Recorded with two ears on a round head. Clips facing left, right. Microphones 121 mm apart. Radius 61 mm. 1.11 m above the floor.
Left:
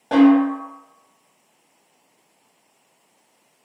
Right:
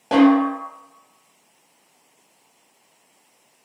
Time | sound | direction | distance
0.1 | a snare drum | 15° right (ahead or behind) | 1.1 m